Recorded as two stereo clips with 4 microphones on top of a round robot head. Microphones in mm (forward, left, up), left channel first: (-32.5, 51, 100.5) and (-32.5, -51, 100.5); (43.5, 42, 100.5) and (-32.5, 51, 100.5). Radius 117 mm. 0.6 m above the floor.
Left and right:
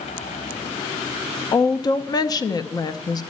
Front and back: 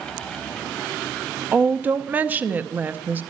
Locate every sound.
1.5 s a woman speaking: 115° left, 0.7 m